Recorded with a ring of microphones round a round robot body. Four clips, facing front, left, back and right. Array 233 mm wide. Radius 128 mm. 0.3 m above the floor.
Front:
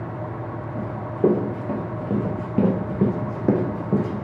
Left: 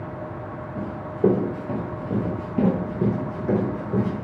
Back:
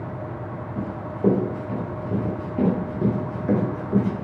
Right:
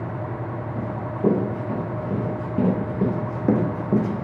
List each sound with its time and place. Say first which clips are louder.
0.8 s running footsteps: left 5 dB, front 5 dB; 20° left, 2.5 m; by 4.2 s 65° right, 1.3 m